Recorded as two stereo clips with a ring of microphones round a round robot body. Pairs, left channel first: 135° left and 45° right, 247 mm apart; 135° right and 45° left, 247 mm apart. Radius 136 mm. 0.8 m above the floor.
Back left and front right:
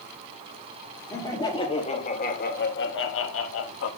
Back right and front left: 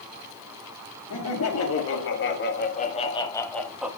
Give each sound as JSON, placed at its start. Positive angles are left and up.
{"t": 1.1, "sound": "laughter", "azimuth_deg": -150, "distance_m": 1.8}